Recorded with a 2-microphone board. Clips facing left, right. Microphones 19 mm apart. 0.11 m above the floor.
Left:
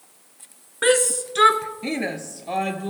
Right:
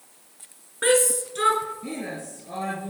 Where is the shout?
15° left (ahead or behind), 1.1 m; by 2.9 s 60° left (ahead or behind), 2.5 m.